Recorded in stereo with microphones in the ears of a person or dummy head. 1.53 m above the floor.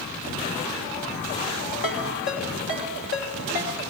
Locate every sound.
1.8 s a ringtone: 60° left (ahead or behind), 1.8 m